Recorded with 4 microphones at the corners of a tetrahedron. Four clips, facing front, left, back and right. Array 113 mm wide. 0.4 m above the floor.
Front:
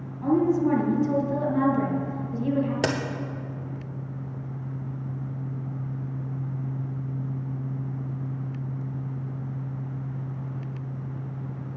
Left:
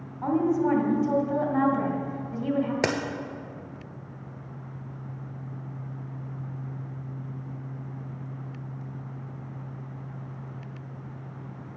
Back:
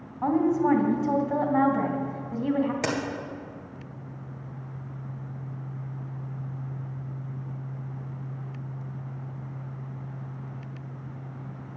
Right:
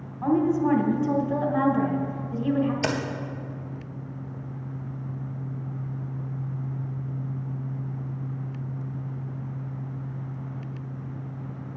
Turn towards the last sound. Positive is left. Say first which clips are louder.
# even, front 3 dB
turn(degrees=60)